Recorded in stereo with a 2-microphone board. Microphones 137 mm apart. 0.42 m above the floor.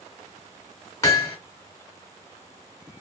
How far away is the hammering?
About 1.0 m.